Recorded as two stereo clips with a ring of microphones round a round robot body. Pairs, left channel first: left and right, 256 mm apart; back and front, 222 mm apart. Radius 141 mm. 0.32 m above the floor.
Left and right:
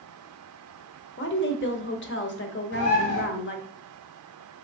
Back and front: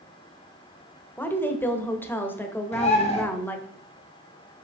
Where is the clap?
No clap in this recording.